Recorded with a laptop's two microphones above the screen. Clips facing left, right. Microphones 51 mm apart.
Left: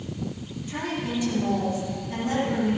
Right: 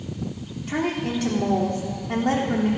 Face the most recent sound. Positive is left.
turn(degrees=-70)  # may be behind; listen again after turning